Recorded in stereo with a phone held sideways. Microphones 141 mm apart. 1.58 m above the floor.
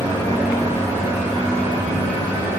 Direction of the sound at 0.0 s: 25° right (ahead or behind).